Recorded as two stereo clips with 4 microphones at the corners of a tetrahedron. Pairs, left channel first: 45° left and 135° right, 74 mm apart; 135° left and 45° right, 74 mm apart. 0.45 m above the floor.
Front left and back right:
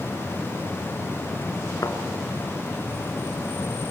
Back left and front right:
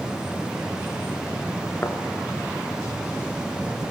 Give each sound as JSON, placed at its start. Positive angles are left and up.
{"t": 1.8, "sound": "a thud", "azimuth_deg": 75, "distance_m": 2.0}